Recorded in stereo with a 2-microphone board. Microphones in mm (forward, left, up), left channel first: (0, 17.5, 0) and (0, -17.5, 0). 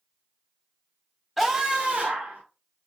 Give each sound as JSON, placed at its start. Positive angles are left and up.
{"t": 1.4, "sound": "a scream", "side_deg": 0, "distance_m": 0.8}